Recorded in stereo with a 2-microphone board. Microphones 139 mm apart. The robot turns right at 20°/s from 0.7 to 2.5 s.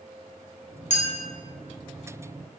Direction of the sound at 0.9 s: 60° left (ahead or behind).